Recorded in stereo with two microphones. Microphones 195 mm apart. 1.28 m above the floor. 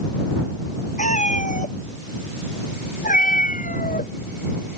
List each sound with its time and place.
1.0 s a cat meowing: 40° left (ahead or behind); by 4.8 s 45° left (ahead or behind)